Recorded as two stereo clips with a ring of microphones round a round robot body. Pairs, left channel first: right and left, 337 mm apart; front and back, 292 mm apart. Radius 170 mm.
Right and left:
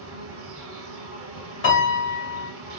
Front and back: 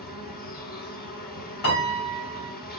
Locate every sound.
0.0 s an insect: 50° left, 1.4 m
1.6 s a piano: 40° right, 2 m